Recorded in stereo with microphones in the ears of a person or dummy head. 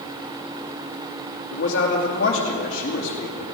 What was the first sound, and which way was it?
A man speaking, 65° left (ahead or behind).